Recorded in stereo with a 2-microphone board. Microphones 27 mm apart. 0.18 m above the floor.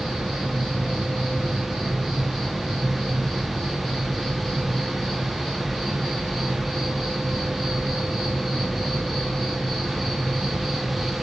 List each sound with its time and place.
0.0 s an insect: 15° left (ahead or behind), 6 m